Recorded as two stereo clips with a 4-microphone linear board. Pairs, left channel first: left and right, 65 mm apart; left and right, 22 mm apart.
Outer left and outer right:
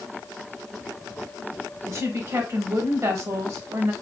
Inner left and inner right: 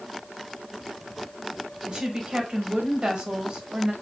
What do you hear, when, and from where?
1.9 s a woman speaking: 45° right (ahead or behind), 1.2 m